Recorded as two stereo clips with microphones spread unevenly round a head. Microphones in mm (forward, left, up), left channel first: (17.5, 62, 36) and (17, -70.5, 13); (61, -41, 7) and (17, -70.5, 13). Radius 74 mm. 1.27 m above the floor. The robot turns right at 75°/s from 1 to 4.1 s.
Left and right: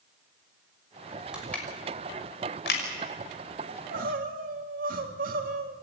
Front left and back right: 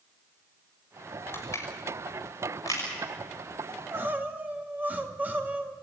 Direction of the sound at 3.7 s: 120° right.